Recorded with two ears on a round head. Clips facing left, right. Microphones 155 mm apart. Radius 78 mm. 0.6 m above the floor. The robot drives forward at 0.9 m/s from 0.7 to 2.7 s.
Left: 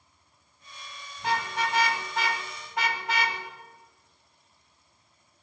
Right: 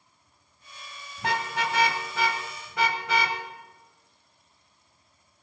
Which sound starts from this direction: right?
A car horn, at 1.2 s.